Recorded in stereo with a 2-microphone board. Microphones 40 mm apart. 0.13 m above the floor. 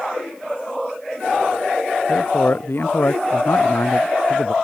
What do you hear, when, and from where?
2.1 s a man speaking: 50° left (ahead or behind); by 4.5 s 75° left (ahead or behind)